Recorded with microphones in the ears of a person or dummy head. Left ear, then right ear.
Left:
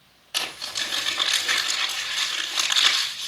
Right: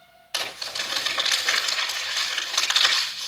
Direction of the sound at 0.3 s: 15° right (ahead or behind).